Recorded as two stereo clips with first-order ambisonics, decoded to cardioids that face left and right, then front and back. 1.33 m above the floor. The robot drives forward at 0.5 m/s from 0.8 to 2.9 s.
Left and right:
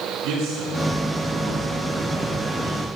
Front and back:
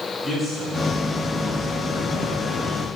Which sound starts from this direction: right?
A man speaking, at 0.2 s.